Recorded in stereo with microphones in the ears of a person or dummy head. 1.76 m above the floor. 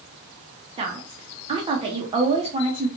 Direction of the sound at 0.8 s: 25° right (ahead or behind).